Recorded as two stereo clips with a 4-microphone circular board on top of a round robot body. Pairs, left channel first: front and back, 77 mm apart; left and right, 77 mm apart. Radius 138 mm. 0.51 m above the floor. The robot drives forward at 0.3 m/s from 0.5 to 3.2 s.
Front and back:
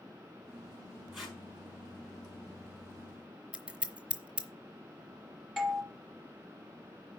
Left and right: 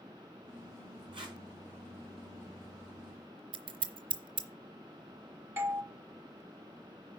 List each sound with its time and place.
1.1 s tape being pulled: 90° right, 5 m
3.5 s scissors: 105° right, 0.7 m
5.6 s a doorbell: 90° right, 1.4 m